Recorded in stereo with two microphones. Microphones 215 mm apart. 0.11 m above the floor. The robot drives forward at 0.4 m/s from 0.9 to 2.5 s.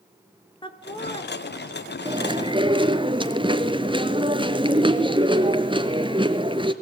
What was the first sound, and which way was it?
Laughter, 20° left (ahead or behind).